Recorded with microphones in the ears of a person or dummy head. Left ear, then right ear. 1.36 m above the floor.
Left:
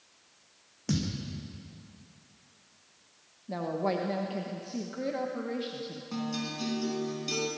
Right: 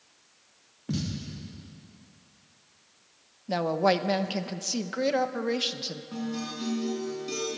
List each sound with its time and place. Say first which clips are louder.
0.9 s a thud: left 1 dB; 80° left, 6.5 m
3.5 s a woman speaking: right 7 dB; 50° right (ahead or behind), 0.9 m
6.1 s a guitar: even; 25° left (ahead or behind), 4.5 m